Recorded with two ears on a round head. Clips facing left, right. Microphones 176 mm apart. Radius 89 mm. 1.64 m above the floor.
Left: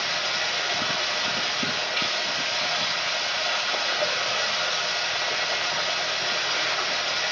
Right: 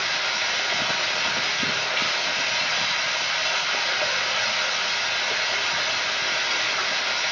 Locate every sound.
0.0 s running water: 30° left (ahead or behind), 3 m